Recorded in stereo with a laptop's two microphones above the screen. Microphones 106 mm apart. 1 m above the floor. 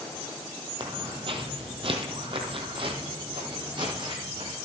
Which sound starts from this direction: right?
Footsteps, at 0.8 s.